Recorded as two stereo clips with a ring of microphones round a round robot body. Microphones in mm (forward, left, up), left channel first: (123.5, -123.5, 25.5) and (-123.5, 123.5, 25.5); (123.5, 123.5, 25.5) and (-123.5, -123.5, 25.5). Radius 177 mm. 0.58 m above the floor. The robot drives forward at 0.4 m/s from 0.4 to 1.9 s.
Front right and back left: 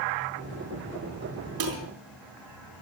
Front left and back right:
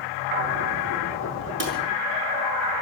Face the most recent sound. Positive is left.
turn(degrees=165)